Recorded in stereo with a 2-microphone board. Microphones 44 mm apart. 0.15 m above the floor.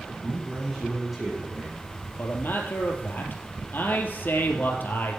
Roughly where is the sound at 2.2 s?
Left.